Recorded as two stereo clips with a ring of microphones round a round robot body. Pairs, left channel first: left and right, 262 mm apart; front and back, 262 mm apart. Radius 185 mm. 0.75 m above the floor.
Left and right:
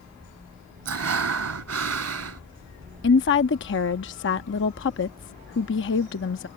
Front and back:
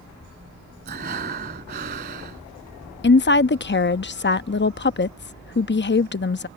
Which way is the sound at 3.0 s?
45° left.